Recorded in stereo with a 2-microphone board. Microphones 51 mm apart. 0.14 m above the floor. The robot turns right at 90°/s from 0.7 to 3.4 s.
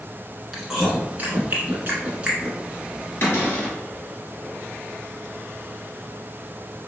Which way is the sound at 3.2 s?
45° left (ahead or behind).